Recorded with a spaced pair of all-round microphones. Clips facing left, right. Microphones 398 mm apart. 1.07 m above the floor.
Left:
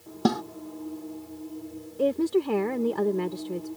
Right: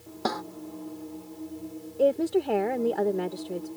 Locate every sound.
0.2 s a snare drum: 45° left (ahead or behind)
2.0 s a woman speaking: 15° left (ahead or behind)